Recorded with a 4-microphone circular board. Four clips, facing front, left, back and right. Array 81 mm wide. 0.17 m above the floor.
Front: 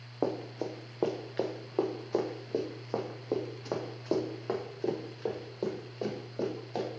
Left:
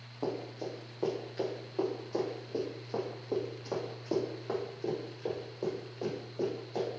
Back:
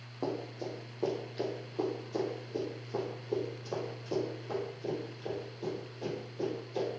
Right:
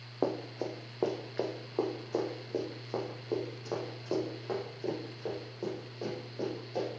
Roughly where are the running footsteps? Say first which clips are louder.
Right 3 dB, front 4 dB; ahead right.